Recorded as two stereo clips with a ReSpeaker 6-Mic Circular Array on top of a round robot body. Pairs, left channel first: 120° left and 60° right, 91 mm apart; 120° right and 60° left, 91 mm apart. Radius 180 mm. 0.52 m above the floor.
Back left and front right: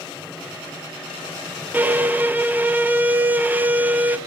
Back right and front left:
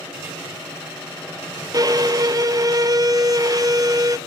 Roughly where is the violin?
Ahead.